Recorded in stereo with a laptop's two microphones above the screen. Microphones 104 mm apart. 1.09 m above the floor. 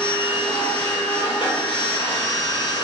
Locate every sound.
0.0 s a machine running: 50° left (ahead or behind), 0.9 m